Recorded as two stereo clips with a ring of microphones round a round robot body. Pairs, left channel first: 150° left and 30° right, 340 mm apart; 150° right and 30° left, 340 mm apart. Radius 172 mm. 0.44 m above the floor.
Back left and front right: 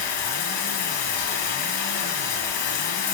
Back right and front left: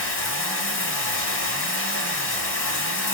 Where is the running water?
155° left, 3.5 m.